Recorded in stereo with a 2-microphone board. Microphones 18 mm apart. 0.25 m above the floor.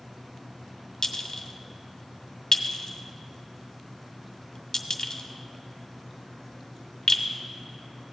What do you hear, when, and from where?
1.0 s a clink: 40° left (ahead or behind), 0.7 m